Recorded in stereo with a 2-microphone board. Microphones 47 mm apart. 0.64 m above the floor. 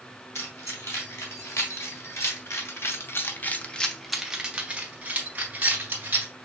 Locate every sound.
0.3 s keys jangling: 75° left (ahead or behind), 2.5 m; by 6.3 s 45° right (ahead or behind), 2 m